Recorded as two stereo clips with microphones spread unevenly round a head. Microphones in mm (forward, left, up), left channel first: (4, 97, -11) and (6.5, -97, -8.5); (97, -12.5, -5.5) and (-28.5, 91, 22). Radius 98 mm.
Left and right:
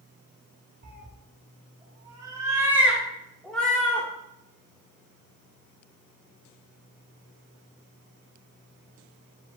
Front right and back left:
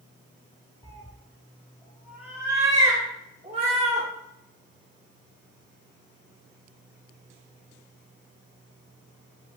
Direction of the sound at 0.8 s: 110° right.